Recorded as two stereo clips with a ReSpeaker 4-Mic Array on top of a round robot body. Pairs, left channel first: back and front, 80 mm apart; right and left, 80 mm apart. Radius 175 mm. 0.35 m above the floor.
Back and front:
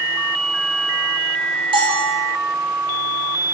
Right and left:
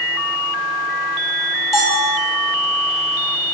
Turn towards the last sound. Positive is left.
turn(degrees=0)